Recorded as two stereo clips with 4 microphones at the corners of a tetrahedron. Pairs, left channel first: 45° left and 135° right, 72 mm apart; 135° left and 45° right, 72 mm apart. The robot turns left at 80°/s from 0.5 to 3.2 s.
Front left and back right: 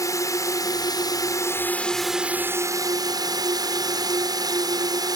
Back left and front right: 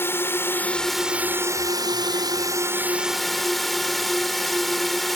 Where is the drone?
80° left; by 5.2 s 135° right.